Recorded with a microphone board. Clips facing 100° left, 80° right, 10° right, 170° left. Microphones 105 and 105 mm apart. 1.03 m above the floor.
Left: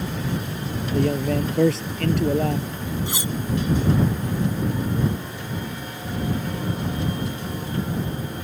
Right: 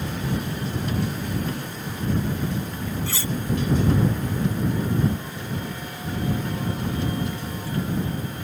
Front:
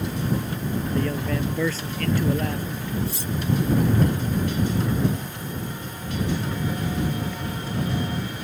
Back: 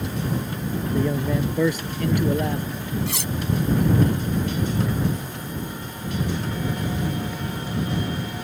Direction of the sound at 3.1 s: 175° left.